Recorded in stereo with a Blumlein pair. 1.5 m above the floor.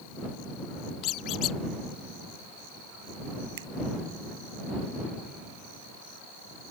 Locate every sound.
1.0 s a squeak: 35° left
3.6 s a finger snap: 55° right